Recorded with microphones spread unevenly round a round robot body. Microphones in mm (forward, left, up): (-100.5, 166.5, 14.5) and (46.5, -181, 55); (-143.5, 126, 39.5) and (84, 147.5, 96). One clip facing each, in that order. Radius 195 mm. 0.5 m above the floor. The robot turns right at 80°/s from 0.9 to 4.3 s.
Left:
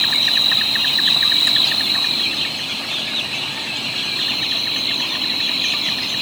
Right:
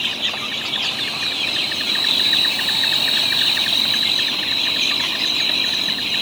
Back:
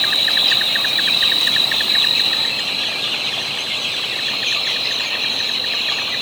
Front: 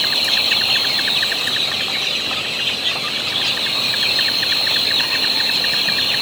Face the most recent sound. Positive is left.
turn(degrees=25)